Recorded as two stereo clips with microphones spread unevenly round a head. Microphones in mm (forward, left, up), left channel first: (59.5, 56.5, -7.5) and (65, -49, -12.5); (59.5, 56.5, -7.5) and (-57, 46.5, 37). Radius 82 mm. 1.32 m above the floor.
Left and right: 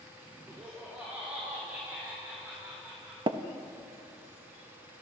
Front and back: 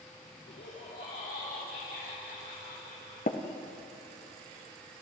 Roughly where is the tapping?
Ahead right.